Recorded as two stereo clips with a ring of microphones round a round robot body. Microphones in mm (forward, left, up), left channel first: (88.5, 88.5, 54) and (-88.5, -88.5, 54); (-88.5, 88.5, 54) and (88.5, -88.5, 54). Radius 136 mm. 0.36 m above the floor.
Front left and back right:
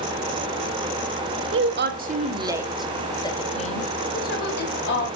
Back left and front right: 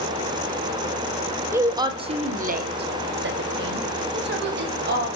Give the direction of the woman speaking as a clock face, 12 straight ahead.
4 o'clock.